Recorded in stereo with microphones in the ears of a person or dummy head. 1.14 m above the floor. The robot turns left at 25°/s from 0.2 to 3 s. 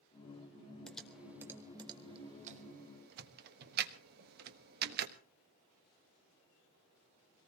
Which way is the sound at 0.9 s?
5° left (ahead or behind).